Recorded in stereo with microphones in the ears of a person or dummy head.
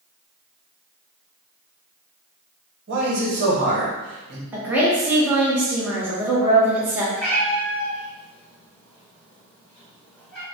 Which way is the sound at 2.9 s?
45° right (ahead or behind).